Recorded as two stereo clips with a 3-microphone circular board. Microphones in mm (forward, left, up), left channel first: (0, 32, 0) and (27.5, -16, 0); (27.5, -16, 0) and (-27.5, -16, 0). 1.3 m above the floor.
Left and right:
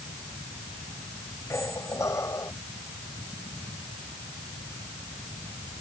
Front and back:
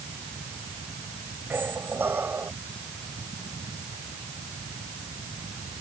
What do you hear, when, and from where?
1.5 s a squeak: 135° left